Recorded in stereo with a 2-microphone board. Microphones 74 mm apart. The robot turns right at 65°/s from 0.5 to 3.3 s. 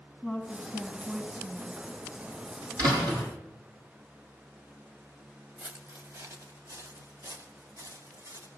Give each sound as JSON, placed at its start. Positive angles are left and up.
{"t": 0.2, "sound": "a woman speaking", "azimuth_deg": 150, "distance_m": 2.5}
{"t": 2.8, "sound": "a door slam", "side_deg": -55, "distance_m": 7.5}
{"t": 5.6, "sound": "footsteps", "side_deg": -35, "distance_m": 1.0}